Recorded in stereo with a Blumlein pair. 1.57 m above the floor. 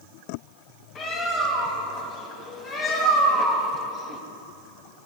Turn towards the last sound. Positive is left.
turn(degrees=30)